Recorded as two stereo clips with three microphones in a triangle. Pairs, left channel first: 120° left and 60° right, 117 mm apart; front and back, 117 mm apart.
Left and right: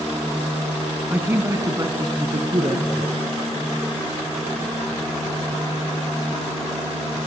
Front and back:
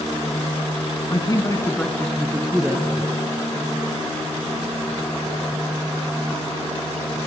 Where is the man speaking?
5° left, 1.7 m; by 3.2 s 110° right, 3 m.